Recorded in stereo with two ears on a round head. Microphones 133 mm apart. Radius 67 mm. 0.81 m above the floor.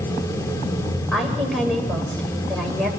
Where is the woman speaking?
5° left (ahead or behind), 3 m.